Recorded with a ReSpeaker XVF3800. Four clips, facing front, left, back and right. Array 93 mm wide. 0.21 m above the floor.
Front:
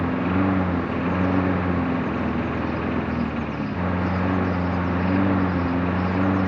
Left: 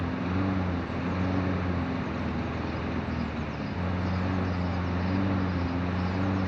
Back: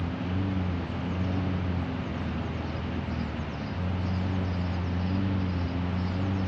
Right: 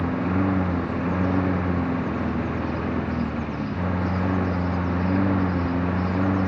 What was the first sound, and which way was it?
A lawn mower, 30° right.